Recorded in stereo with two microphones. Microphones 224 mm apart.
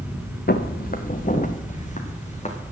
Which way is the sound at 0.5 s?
45° left (ahead or behind).